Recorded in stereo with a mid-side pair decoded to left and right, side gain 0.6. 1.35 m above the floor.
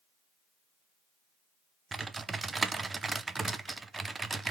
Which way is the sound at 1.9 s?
20° right.